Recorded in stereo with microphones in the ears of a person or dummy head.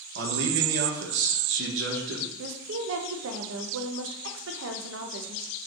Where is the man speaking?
65° right (ahead or behind), 1.4 m.